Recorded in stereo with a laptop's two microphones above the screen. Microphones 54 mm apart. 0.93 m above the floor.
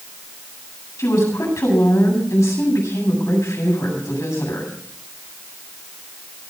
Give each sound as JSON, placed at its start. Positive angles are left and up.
{"t": 1.0, "sound": "a woman speaking", "side_deg": 65, "distance_m": 8.0}